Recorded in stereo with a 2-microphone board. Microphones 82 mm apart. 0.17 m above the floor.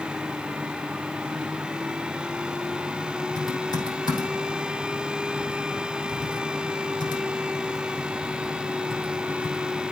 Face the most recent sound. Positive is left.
turn(degrees=50)  # may be behind; listen again after turning